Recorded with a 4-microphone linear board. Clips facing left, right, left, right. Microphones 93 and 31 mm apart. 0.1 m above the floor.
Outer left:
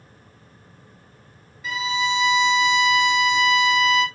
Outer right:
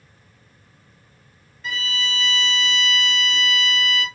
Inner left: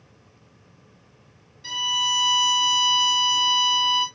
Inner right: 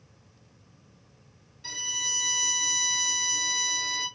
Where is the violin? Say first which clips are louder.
Outer left 6 dB, inner left 10 dB; 5° left (ahead or behind), 1.5 m.